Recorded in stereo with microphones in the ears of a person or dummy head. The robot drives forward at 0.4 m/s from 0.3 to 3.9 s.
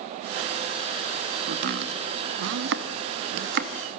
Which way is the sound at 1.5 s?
55° right (ahead or behind).